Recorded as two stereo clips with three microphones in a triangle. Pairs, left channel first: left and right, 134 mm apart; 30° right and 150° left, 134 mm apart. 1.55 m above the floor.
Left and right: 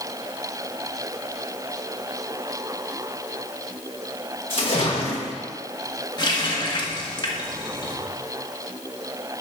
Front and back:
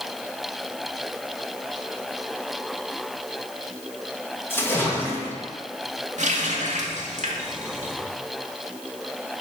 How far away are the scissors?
No scissors in this recording.